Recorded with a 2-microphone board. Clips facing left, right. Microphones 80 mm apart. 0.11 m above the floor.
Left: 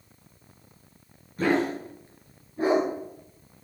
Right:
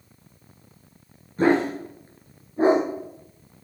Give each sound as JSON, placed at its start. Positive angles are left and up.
{"t": 1.4, "sound": "a dog barking", "side_deg": -30, "distance_m": 4.5}